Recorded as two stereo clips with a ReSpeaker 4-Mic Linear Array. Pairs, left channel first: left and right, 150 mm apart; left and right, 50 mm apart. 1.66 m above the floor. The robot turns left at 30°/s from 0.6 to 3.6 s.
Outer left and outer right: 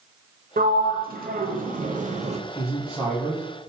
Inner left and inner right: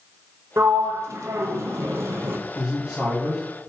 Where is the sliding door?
75° right (ahead or behind), 0.8 m; by 2.4 s 50° right (ahead or behind), 0.8 m.